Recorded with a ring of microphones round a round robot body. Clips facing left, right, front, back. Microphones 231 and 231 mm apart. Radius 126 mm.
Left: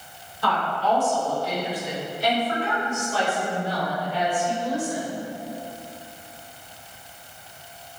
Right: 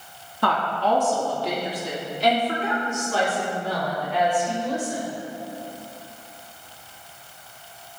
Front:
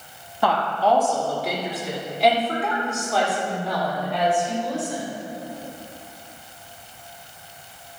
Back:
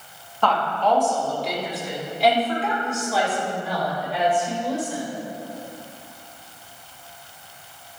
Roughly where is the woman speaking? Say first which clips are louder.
Right 1 dB, front 1 dB; right.